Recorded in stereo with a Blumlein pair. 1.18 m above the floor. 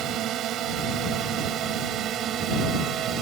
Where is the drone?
35° right; by 3.2 s 30° right.